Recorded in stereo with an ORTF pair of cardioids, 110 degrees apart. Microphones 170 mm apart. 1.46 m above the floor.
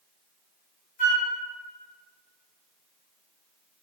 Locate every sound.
1.0 s a flute: 55° left, 1.0 m